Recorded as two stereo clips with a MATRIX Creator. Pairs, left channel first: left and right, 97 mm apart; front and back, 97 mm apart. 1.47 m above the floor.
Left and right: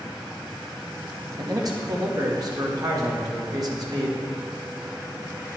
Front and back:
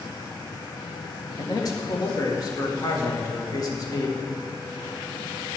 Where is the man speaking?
45° right, 1.9 m.